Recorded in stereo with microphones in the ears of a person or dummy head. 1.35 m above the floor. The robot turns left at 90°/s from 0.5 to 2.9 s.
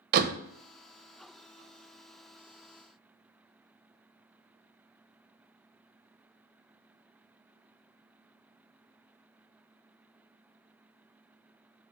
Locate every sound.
0.1 s a door slam: 50° right (ahead or behind), 0.6 m